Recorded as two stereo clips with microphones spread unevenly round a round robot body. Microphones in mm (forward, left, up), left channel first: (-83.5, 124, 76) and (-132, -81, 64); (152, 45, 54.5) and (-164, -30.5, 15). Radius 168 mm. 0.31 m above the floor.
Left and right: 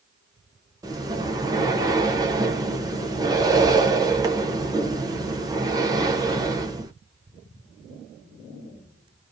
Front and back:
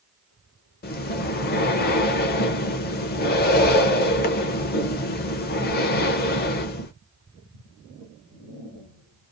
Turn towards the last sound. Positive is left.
turn(degrees=-45)